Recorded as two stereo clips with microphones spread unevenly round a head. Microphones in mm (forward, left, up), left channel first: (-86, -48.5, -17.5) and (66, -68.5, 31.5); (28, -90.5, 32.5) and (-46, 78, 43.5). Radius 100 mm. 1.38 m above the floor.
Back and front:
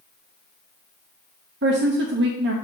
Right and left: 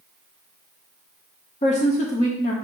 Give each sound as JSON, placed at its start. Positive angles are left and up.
{"t": 1.6, "sound": "a woman speaking", "azimuth_deg": -15, "distance_m": 0.8}